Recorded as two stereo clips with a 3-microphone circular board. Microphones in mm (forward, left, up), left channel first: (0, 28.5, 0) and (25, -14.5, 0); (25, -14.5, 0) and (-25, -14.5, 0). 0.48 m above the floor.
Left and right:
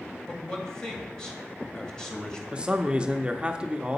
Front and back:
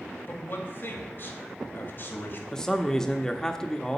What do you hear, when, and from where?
0.3 s a man speaking: 45° left, 2 m
2.5 s a man speaking: 55° right, 0.7 m